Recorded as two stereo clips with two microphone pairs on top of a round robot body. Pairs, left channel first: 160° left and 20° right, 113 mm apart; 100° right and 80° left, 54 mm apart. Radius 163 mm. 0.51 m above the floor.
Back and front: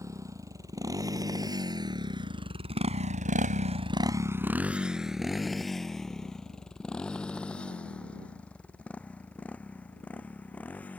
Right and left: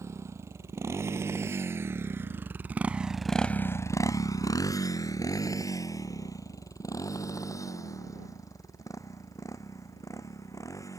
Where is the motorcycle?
45° left; by 11.0 s 120° right.